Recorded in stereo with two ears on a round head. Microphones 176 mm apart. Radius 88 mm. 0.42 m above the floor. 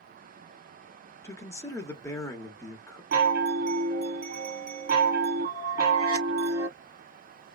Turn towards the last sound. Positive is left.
turn(degrees=-55)  # may be behind; listen again after turning